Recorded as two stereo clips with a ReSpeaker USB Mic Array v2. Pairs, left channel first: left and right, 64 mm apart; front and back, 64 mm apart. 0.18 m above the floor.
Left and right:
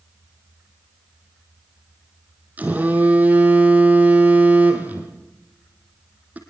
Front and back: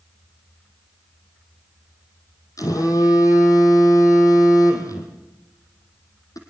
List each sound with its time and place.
2.6 s a phone buzzing: 25° right, 3 m